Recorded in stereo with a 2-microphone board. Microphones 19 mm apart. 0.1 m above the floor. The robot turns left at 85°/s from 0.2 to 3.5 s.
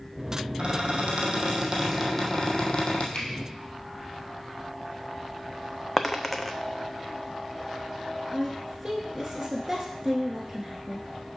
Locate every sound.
0.6 s a squeak: 55° right, 1.3 m; by 3.0 s 100° left, 1.3 m
3.1 s a finger snap: 55° left (ahead or behind), 1.9 m; by 3.3 s 60° left (ahead or behind), 1.9 m
6.0 s a dropped coin: 10° left (ahead or behind), 0.5 m
8.3 s a woman speaking: 5° right (ahead or behind), 1.1 m